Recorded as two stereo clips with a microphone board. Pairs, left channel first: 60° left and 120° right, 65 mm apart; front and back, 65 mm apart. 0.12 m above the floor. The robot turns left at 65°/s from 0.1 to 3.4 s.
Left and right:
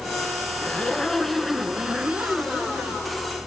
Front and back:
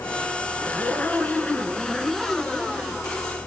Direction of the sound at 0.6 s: 20° left.